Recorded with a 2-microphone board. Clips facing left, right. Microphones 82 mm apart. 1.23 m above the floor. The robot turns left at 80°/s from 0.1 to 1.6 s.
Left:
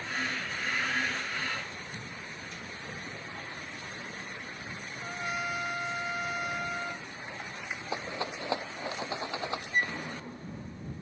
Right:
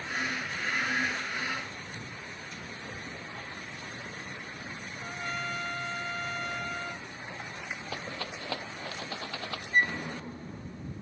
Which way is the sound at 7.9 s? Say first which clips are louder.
Left 6 dB; 20° left (ahead or behind).